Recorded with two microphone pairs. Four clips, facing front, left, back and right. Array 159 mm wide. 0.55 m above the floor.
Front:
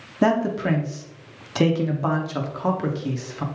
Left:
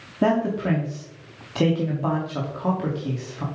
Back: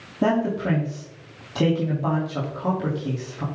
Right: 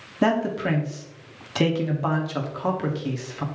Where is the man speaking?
15° right, 1.1 m.